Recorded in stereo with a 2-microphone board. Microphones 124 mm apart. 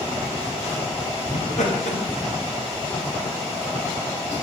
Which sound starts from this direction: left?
Laughter, at 1.3 s.